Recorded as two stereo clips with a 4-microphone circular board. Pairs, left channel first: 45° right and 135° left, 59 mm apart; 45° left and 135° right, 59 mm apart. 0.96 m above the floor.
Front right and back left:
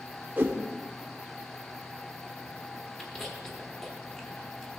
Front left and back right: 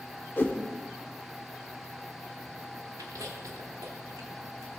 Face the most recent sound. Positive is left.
turn(degrees=-125)